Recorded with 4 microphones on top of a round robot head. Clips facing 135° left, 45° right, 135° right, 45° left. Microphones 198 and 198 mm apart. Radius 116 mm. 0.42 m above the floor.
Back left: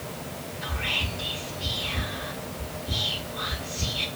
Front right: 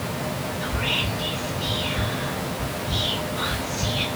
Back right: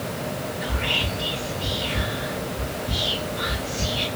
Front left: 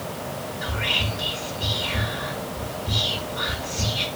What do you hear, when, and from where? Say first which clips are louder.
0.6 s whispering: front right 7 dB, back right 2 dB; 25° left, 1.4 m